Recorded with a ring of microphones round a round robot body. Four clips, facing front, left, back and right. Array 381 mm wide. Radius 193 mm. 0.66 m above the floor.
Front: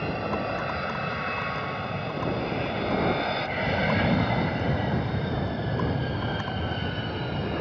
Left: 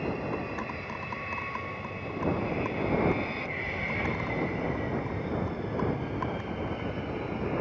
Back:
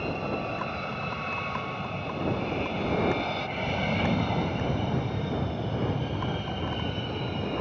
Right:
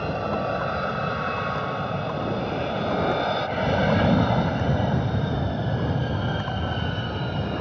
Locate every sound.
0.0 s an aircraft: 80° right; by 7.6 s 85° right